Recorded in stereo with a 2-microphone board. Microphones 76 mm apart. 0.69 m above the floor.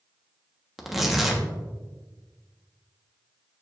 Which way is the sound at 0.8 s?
5° right (ahead or behind).